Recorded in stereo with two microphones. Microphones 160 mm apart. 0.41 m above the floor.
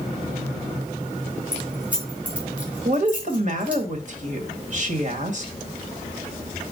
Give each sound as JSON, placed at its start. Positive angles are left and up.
{"t": 1.5, "sound": "keys jangling", "side_deg": -10, "distance_m": 3.0}
{"t": 2.9, "sound": "a woman speaking", "side_deg": -50, "distance_m": 1.7}